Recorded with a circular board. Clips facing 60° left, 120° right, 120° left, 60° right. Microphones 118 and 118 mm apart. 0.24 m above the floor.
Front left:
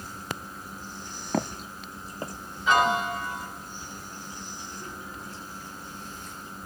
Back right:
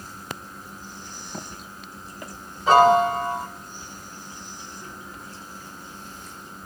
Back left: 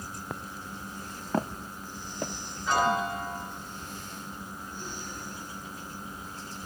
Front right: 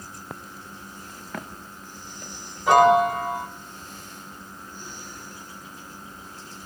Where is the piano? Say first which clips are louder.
Back right 8 dB, front right 11 dB; 65° right, 2.5 m.